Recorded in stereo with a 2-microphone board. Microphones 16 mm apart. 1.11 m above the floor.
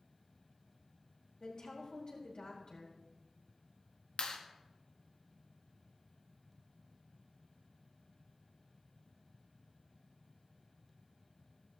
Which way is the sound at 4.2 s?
80° left.